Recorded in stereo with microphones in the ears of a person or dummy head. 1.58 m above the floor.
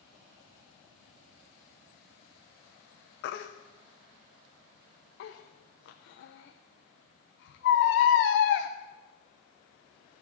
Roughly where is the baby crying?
Left.